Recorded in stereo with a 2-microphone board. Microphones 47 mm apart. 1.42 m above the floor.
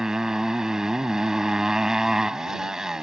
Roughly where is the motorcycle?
Centre.